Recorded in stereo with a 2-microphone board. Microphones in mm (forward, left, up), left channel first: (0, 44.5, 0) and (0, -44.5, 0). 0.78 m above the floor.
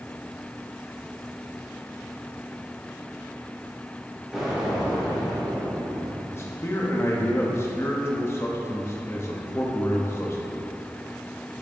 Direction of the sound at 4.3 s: 5° right (ahead or behind).